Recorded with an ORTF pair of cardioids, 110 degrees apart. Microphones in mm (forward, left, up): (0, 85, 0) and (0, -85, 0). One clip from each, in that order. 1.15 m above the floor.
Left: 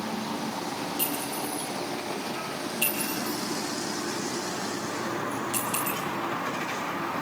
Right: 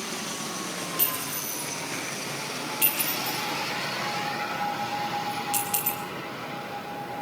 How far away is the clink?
About 7 m.